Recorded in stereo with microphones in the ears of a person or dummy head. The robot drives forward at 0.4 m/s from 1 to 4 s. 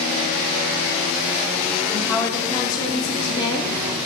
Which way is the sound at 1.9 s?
15° left (ahead or behind).